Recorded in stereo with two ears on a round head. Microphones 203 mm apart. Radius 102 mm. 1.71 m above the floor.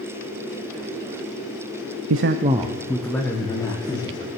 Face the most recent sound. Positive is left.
turn(degrees=20)  # may be behind; listen again after turning